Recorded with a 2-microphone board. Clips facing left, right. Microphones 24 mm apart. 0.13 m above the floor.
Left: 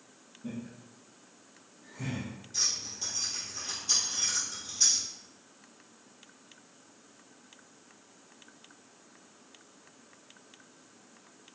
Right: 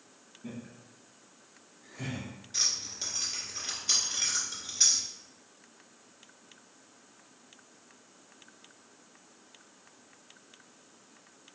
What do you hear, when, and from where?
0.4 s laughter: 25° right (ahead or behind), 1.9 m; by 2.3 s 40° right (ahead or behind), 1.7 m
2.5 s keys jangling: 35° right (ahead or behind), 1.5 m